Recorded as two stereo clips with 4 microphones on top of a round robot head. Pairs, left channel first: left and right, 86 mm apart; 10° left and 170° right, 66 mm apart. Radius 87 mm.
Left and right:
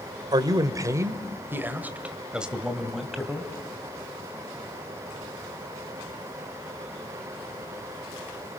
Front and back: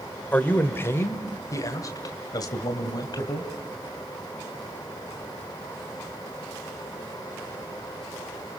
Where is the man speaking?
55° right, 1.6 m; by 3.5 s straight ahead, 2.5 m.